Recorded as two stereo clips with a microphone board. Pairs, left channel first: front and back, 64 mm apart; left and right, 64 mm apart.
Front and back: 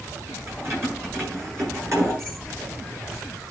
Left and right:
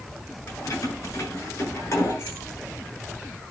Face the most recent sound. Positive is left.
turn(degrees=140)